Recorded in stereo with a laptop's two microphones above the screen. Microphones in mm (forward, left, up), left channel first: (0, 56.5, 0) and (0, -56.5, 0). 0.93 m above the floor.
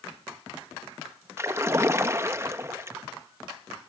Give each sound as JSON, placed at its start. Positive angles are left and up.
{"t": 1.4, "sound": "a splash", "side_deg": -25, "distance_m": 0.7}